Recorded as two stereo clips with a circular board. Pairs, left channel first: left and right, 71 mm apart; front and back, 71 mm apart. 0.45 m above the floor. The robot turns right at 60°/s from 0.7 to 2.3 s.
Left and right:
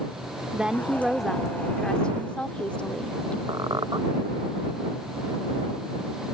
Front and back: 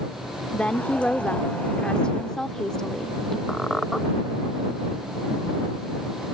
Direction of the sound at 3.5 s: 90° right.